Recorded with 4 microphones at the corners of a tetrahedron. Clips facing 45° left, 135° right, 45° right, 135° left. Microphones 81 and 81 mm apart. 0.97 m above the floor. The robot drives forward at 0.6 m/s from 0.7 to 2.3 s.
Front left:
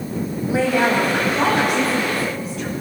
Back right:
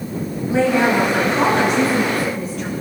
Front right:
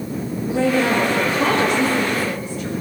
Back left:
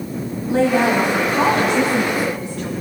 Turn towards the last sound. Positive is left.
turn(degrees=135)